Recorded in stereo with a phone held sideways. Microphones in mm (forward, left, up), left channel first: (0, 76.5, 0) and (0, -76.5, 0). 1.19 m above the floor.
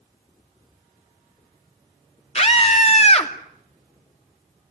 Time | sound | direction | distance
2.4 | a scream | 45° left (ahead or behind) | 2.5 m